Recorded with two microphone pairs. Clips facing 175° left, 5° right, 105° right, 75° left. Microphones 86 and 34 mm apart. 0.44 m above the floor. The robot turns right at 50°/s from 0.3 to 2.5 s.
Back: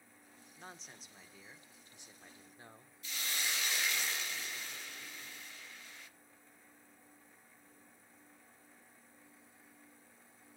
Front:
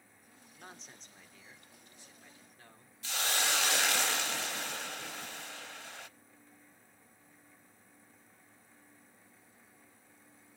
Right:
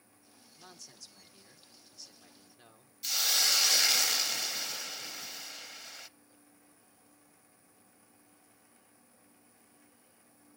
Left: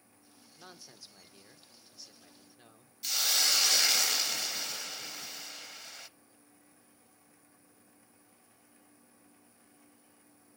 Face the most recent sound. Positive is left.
turn(degrees=-15)